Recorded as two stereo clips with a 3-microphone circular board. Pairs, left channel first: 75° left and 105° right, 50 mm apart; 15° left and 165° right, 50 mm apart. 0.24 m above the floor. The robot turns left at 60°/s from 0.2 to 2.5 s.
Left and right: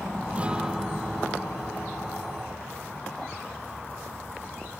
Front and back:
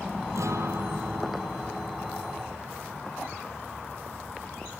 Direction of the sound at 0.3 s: 165° right.